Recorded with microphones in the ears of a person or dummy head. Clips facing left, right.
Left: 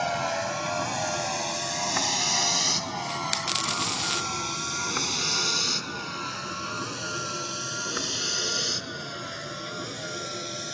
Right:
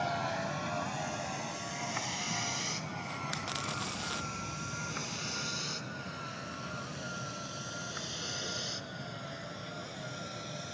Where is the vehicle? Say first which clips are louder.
Left 6 dB; 60° left (ahead or behind); by 10.8 s 85° left.